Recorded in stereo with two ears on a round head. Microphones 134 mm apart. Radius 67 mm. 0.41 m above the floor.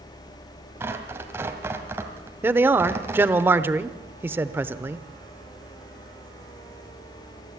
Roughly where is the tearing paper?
Centre.